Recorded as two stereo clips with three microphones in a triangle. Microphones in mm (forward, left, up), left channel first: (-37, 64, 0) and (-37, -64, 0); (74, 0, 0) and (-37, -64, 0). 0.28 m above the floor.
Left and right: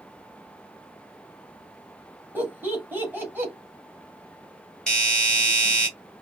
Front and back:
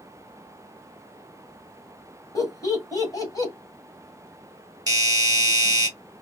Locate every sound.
2.4 s laughter: 20° right, 2 m
4.9 s a doorbell: 170° left, 2.0 m